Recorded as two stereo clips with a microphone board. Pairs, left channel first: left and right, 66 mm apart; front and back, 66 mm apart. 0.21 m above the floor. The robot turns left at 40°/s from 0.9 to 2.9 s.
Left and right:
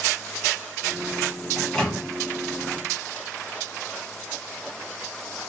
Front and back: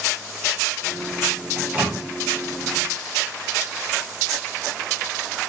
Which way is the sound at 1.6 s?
160° left.